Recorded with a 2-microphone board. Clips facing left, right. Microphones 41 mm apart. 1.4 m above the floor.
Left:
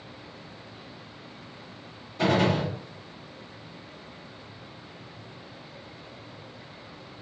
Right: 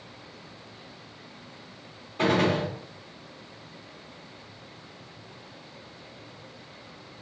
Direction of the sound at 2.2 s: 35° right (ahead or behind).